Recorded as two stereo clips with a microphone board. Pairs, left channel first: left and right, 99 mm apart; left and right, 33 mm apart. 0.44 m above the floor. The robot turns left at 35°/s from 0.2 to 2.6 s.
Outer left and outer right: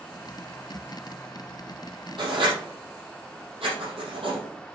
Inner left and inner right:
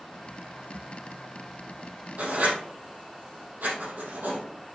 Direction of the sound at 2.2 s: 60° right (ahead or behind).